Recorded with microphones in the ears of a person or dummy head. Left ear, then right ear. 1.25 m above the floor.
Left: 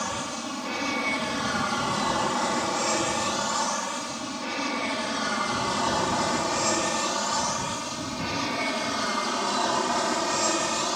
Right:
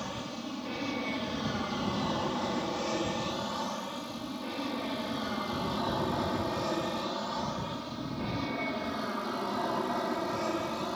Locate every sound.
0.0 s an aircraft: 50° left (ahead or behind); by 11.0 s 65° left (ahead or behind)